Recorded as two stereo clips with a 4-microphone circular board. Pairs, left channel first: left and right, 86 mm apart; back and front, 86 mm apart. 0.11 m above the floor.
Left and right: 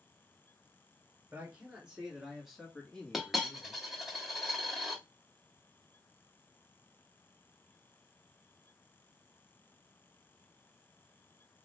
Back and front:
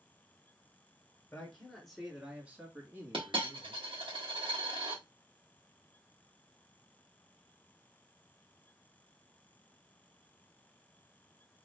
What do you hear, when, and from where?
1.3 s a man speaking: 120° right, 1.4 m; by 3.9 s 25° left, 1.9 m
3.1 s a dropped coin: 5° right, 1.5 m